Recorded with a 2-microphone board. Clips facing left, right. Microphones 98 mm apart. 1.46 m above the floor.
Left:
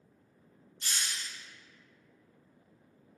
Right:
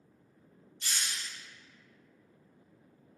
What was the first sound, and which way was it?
A hiss, 45° left (ahead or behind).